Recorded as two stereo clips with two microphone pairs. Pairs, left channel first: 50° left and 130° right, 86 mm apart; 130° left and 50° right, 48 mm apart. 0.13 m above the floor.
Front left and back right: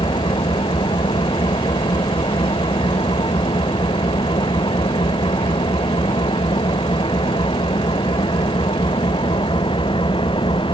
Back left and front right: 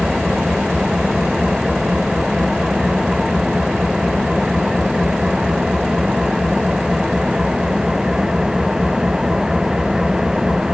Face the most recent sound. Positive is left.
turn(degrees=30)